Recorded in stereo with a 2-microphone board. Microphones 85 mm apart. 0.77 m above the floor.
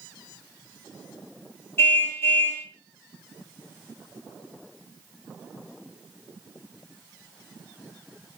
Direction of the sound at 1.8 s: 30° left (ahead or behind).